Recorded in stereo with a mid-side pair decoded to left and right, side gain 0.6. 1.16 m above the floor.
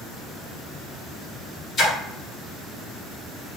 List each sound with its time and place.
1.8 s a splash: 40° left, 1.3 m